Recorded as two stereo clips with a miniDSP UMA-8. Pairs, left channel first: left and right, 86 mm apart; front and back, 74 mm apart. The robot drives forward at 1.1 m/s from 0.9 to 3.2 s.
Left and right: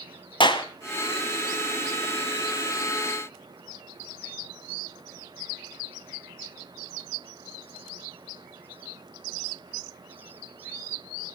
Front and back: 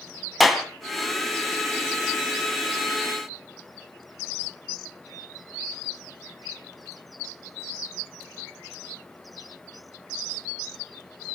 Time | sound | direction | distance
0.4 | a clap | 90° left | 2 m